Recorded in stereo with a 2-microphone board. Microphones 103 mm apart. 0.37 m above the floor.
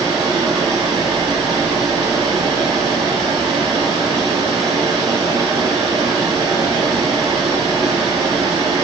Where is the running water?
40° right (ahead or behind), 1.4 m.